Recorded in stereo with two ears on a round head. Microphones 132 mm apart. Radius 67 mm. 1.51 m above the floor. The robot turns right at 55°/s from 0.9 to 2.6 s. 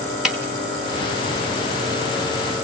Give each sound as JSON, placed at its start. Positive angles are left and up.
{"t": 0.2, "sound": "a snare drum", "side_deg": -5, "distance_m": 1.8}